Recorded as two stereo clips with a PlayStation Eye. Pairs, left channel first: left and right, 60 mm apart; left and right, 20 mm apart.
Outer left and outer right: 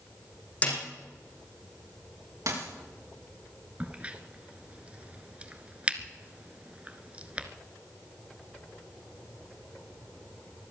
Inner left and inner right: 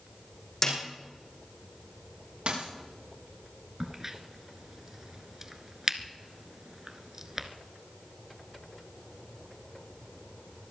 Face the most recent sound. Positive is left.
turn(degrees=-20)  # may be behind; listen again after turning